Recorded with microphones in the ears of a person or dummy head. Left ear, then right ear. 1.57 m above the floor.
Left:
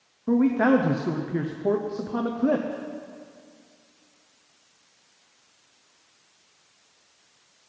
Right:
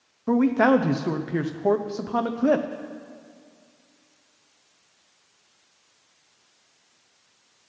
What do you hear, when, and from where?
0.3 s a man speaking: 25° right (ahead or behind), 0.6 m